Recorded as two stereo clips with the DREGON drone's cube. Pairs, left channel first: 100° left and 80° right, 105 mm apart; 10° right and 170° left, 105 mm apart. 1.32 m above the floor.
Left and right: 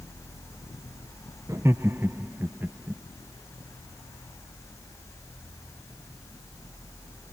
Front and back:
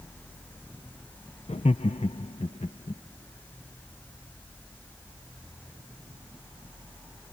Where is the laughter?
15° right; by 3.0 s 5° right.